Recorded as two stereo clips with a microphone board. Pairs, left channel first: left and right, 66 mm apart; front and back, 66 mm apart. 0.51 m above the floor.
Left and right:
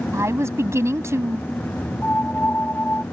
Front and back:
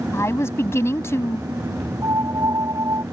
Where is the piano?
155° left.